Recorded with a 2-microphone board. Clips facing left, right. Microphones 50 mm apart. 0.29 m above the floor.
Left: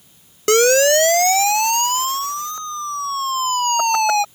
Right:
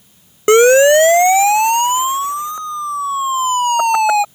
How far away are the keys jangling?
No keys jangling in this recording.